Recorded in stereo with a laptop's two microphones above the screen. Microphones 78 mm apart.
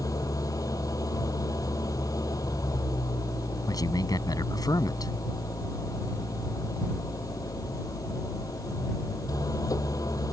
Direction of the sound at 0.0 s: 50° left (ahead or behind).